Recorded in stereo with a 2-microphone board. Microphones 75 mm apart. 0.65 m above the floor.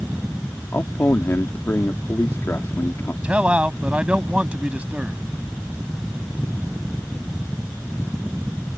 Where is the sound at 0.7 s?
35° left (ahead or behind).